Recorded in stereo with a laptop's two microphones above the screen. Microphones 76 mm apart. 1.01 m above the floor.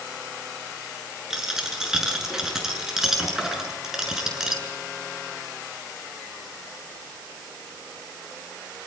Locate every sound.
1.3 s a dropped coin: 5° right (ahead or behind), 6.5 m